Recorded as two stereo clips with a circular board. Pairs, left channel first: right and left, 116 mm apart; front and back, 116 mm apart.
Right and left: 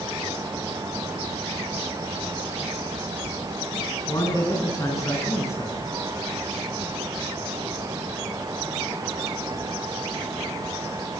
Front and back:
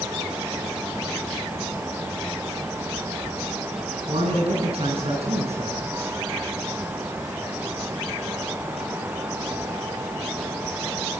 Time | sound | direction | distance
4.1 | a man speaking | 150° right | 7 m